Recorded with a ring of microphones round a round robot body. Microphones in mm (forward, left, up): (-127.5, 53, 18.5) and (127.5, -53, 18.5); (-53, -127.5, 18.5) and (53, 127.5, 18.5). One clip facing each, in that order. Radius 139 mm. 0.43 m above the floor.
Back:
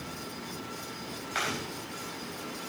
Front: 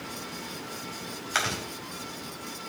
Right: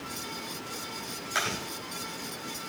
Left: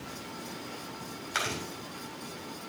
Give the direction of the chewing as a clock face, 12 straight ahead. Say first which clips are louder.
Even, right 1 dB; 12 o'clock.